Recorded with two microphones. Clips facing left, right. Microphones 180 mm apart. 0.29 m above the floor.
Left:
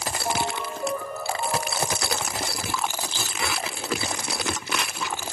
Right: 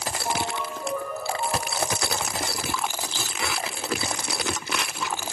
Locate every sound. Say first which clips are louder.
0.2 s a ringtone: left 1 dB; 15° left (ahead or behind), 6 m